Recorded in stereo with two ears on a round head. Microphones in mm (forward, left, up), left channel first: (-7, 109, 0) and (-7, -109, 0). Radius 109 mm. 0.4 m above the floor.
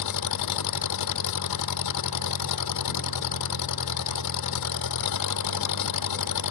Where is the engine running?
85° left.